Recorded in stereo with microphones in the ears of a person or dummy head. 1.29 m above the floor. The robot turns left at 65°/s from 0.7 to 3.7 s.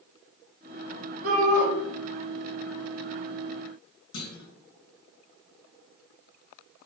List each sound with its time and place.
1.2 s a shout: 60° right (ahead or behind), 1.5 m; by 1.7 s 75° right (ahead or behind), 1.5 m
4.1 s a clunk: 75° left (ahead or behind), 0.9 m